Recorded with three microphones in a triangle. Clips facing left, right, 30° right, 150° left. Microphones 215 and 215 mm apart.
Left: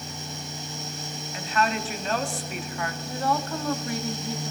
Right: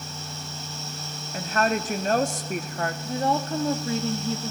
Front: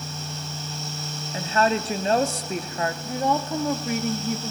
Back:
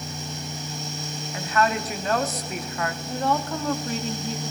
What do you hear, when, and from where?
1.3 s a woman speaking: 80° right, 0.8 m
3.0 s a woman speaking: 85° right, 0.8 m